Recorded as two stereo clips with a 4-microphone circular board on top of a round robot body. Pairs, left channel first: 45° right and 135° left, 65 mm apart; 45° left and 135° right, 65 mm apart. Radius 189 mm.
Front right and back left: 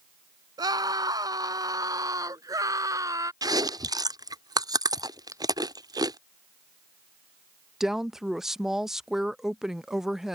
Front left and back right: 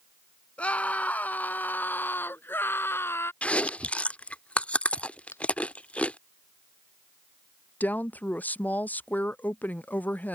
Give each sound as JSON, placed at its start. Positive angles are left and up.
{"t": 0.6, "sound": "a scream", "azimuth_deg": 115}
{"t": 3.4, "sound": "chewing", "azimuth_deg": 115}
{"t": 5.3, "sound": "a finger snap", "azimuth_deg": 95}
{"t": 7.8, "sound": "a woman speaking", "azimuth_deg": 60}